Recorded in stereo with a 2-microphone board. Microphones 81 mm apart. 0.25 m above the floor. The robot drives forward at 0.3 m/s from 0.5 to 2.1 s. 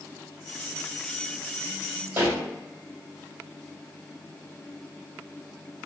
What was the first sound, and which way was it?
A pop, 30° right (ahead or behind).